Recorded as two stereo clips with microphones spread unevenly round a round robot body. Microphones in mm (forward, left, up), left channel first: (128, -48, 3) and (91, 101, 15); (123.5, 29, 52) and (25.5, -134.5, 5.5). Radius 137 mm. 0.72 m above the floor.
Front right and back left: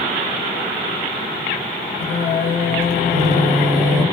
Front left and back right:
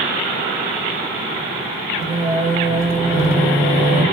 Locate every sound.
2.0 s singing: 150° right, 2.5 m